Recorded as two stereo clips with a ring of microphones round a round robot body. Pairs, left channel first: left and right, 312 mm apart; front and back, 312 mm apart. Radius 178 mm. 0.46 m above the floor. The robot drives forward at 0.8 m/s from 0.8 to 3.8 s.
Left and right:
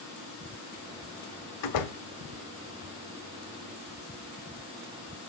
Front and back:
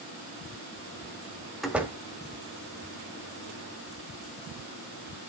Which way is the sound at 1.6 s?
90° left.